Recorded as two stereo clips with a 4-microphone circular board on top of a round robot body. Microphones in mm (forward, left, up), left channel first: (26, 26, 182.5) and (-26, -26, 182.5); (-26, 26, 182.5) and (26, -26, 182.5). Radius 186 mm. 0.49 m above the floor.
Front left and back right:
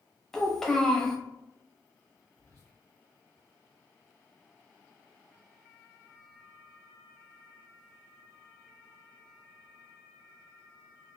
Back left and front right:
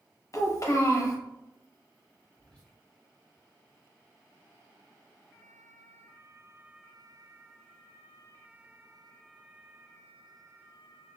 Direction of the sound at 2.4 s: 70° left.